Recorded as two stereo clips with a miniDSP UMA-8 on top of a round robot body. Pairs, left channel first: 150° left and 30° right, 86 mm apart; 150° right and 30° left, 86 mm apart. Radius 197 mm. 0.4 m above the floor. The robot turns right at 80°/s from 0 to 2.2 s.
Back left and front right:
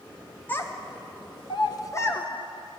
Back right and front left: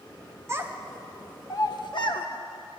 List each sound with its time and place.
0.5 s a child speaking: 85° left, 1.4 m; by 2.3 s 140° right, 1.4 m